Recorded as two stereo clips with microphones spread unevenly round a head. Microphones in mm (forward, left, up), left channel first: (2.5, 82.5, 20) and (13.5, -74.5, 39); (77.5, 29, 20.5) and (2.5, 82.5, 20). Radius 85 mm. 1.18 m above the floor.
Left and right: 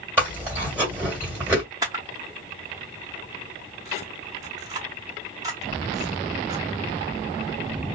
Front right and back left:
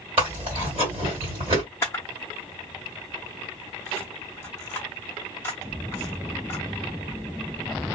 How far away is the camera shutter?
About 0.8 m.